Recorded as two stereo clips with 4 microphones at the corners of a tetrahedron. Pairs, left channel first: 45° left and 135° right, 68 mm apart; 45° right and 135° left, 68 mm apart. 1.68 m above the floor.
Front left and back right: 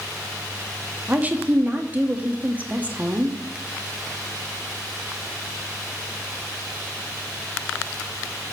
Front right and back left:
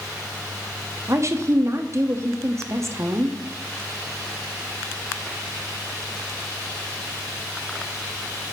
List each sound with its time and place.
1.1 s a woman speaking: 165° left, 0.8 m